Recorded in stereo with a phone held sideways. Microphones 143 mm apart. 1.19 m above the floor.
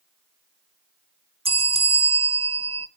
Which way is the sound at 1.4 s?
40° right (ahead or behind).